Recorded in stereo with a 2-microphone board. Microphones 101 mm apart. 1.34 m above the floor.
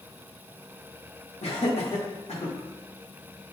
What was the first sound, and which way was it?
Laughter, 85° left.